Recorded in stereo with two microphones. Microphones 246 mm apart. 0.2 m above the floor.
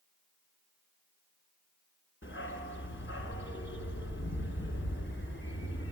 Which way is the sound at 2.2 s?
50° left (ahead or behind).